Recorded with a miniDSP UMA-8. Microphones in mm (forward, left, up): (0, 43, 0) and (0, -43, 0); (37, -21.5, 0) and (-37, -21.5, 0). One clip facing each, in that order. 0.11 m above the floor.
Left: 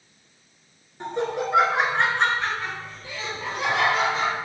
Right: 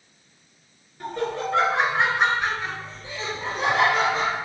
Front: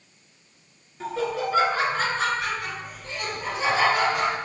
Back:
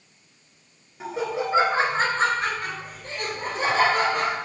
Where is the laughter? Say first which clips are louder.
Left 1 dB, even; 115° left, 1.3 m; by 4.3 s 130° right, 2.5 m.